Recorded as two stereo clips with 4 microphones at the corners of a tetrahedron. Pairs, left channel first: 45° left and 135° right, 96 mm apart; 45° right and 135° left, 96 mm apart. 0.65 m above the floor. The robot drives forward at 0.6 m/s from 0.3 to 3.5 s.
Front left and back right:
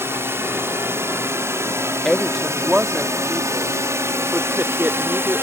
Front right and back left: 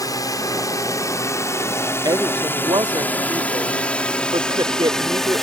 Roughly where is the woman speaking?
Behind left.